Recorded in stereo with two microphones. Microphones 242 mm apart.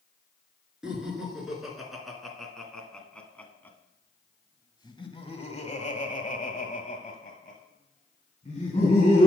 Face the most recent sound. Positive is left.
turn(degrees=30)  # may be behind; listen again after turning